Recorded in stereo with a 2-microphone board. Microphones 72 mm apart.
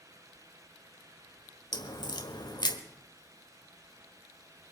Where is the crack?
85° left, 1.6 m.